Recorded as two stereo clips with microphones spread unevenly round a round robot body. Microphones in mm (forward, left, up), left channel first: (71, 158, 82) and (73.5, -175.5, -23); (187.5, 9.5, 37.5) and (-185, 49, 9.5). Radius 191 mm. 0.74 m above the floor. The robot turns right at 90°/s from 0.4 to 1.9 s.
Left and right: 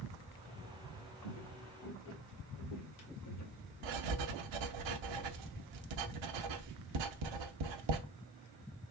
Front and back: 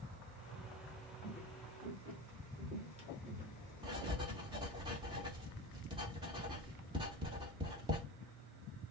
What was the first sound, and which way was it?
Footsteps, 65° left.